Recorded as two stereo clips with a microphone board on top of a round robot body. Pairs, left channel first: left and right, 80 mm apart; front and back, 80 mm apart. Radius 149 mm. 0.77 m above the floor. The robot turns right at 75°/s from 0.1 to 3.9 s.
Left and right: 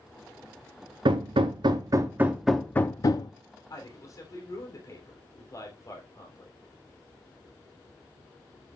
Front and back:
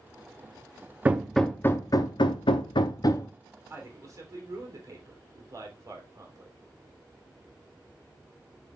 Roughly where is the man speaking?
Behind left.